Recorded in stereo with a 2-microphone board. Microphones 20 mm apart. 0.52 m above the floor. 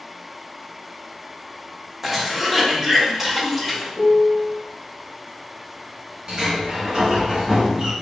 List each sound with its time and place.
2.0 s a cough: 15° right (ahead or behind), 0.8 m
4.0 s a piano: 25° left (ahead or behind), 1.4 m
6.3 s a sliding door: 40° right (ahead or behind), 1.2 m